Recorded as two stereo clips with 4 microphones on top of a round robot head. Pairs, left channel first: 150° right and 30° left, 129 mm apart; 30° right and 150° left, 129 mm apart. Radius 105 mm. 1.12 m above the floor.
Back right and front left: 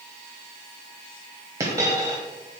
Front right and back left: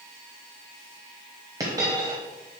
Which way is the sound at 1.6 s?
90° left.